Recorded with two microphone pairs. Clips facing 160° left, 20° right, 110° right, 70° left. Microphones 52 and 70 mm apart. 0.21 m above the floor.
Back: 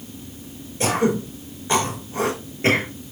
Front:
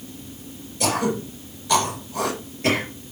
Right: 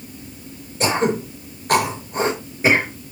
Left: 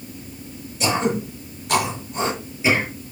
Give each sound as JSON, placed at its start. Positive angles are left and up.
{"t": 0.8, "sound": "throat clearing", "azimuth_deg": -150, "distance_m": 4.0}